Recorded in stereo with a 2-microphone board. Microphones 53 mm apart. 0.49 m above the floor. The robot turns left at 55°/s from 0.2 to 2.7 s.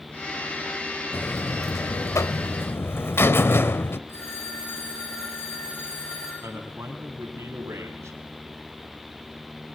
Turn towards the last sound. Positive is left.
turn(degrees=-65)  # may be behind; listen again after turning